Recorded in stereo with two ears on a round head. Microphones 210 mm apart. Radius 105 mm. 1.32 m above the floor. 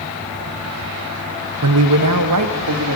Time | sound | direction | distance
1.6 | a man speaking | 75° right (ahead or behind) | 0.7 m